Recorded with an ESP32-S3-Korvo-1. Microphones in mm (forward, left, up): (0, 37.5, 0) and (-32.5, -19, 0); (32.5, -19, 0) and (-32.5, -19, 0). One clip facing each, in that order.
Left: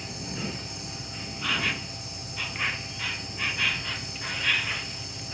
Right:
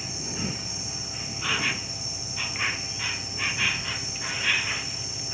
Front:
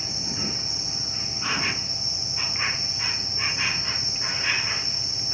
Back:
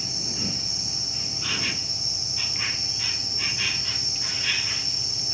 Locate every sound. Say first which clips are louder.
0.0 s an insect: right 1 dB, front 1 dB; 40° right